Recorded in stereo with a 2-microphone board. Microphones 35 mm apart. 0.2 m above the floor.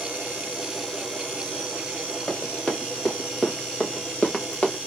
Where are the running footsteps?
25° left (ahead or behind), 3 m; by 4.8 s 30° left (ahead or behind), 1.2 m.